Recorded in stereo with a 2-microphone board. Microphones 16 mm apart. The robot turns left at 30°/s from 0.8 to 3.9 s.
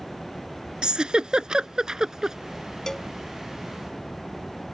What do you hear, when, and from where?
0.8 s a giggle: 75° right (ahead or behind); by 2.4 s 40° right (ahead or behind)
2.9 s a cowbell: 35° left (ahead or behind); by 3.1 s 30° left (ahead or behind)